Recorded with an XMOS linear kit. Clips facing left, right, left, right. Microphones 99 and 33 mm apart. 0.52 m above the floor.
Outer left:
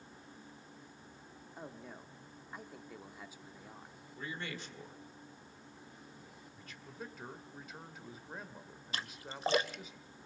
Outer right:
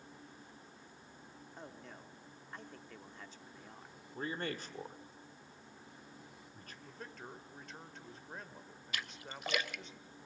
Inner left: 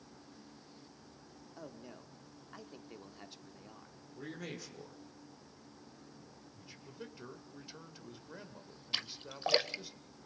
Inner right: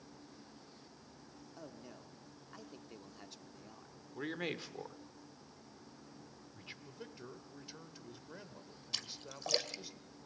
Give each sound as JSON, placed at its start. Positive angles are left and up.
{"t": 1.6, "sound": "a man speaking", "side_deg": 10, "distance_m": 1.2}
{"t": 4.1, "sound": "a man speaking", "side_deg": -45, "distance_m": 1.7}
{"t": 6.8, "sound": "a man speaking", "side_deg": 5, "distance_m": 1.7}
{"t": 8.9, "sound": "a splash", "side_deg": 35, "distance_m": 0.6}